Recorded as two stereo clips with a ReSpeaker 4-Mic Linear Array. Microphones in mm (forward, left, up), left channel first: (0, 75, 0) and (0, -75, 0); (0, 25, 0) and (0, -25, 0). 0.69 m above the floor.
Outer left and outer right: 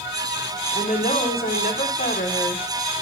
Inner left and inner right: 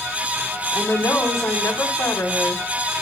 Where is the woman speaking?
80° left, 4 m.